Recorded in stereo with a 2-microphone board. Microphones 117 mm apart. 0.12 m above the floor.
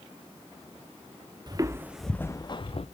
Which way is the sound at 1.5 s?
35° right (ahead or behind).